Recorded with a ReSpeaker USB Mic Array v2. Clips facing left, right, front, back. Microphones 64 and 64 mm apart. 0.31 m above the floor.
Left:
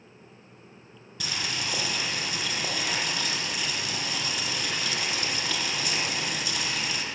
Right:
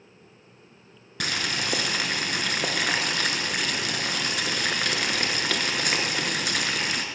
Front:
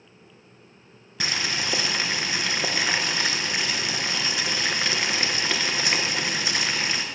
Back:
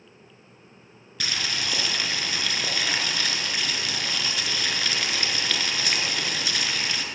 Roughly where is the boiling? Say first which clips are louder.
Right 4 dB, front 2 dB; ahead right.